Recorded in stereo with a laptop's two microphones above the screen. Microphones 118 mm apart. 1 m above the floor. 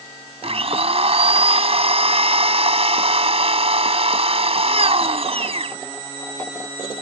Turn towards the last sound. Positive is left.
turn(degrees=-60)  # may be behind; listen again after turning